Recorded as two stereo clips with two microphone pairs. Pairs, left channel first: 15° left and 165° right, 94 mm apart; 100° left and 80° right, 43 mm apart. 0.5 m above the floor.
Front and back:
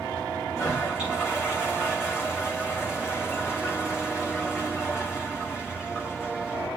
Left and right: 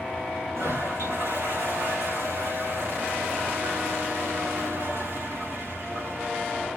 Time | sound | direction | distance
0.6 | a toilet flushing | 80° right | 5.5 m